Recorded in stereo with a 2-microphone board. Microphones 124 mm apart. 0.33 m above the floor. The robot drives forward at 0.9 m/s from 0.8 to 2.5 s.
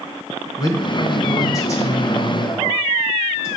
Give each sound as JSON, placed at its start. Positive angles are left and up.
{"t": 0.6, "sound": "a man speaking", "side_deg": 35, "distance_m": 1.4}